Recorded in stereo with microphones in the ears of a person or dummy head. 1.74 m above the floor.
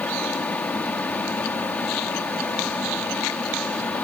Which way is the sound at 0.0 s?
10° left (ahead or behind).